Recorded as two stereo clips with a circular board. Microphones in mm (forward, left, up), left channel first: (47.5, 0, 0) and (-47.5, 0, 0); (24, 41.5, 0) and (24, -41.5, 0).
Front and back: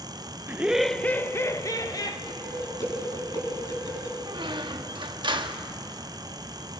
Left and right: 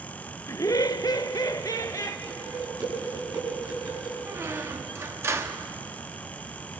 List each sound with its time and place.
0.5 s laughter: 125° left, 0.6 m; by 2.2 s 40° left, 1.4 m
2.3 s dishes clattering: 50° right, 6 m
4.3 s a squeak: 145° right, 1.0 m